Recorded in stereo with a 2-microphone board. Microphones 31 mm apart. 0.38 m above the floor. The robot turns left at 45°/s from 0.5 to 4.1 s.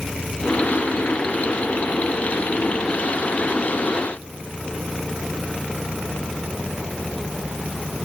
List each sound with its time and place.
Only background noise.